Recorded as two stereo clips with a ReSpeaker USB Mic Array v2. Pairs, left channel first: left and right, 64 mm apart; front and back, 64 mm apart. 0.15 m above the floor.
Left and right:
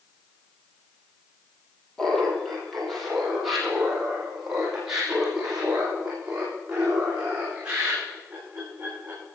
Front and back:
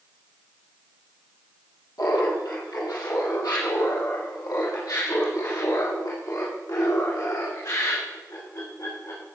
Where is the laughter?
5° left, 4 m; by 9.2 s 15° right, 9 m.